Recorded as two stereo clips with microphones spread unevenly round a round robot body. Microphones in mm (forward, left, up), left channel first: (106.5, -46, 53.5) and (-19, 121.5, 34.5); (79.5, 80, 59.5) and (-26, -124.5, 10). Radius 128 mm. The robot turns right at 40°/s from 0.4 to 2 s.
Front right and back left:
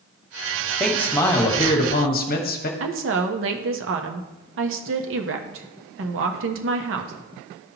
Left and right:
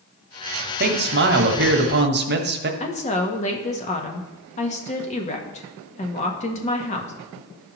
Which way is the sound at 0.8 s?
145° right.